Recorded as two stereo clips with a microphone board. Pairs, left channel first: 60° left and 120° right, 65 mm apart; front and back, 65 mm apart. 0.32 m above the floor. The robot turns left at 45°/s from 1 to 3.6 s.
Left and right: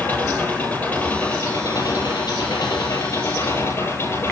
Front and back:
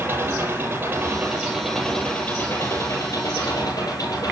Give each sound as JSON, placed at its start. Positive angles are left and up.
{"t": 0.0, "sound": "an engine running", "azimuth_deg": 125, "distance_m": 9.0}